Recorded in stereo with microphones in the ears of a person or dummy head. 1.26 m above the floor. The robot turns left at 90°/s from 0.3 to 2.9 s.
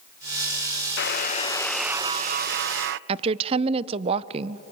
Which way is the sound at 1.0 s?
75° left.